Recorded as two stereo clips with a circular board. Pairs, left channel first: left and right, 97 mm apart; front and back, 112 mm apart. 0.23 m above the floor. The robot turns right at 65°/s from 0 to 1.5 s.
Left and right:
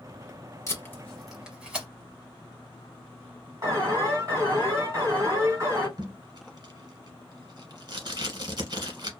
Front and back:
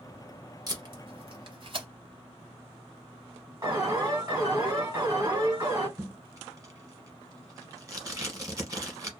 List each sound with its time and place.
0.7 s tape being pulled: 140° left, 1.0 m; by 1.9 s 165° right, 1.0 m
3.6 s an alarm: 135° right, 1.8 m
6.0 s tape being pulled: 125° right, 0.9 m